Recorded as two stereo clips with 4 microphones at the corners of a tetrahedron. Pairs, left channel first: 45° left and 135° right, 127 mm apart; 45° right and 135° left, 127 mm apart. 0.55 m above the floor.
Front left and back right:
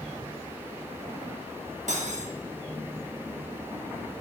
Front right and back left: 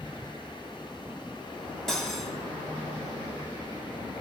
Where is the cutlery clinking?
130° right, 1.0 m.